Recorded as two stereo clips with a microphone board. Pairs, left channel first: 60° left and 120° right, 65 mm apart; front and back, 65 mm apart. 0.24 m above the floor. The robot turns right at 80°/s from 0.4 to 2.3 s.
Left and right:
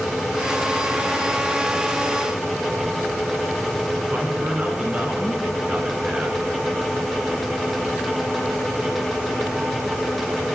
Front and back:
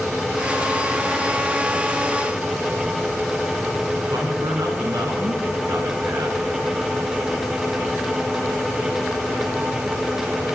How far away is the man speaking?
About 3.5 m.